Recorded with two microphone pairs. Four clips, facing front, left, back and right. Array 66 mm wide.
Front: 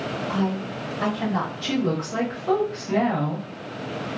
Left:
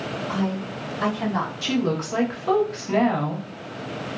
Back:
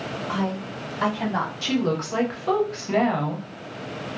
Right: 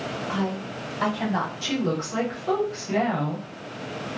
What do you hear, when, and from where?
0.3 s a woman speaking: 170° right, 1.8 m; by 1.5 s 125° right, 1.7 m
1.6 s a woman speaking: 155° left, 1.1 m